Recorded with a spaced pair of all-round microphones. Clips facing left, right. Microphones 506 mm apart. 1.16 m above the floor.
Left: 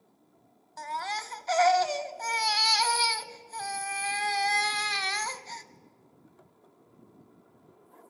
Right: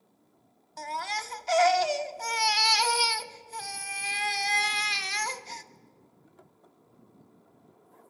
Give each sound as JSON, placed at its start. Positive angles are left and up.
{"t": 0.8, "sound": "a baby crying", "side_deg": -50, "distance_m": 0.7}